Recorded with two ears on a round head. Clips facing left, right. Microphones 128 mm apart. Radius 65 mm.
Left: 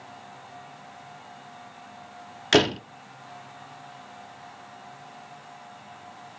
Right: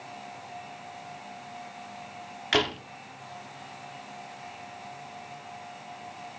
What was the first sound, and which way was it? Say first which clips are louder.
A door slam: left 7 dB; 50° left (ahead or behind).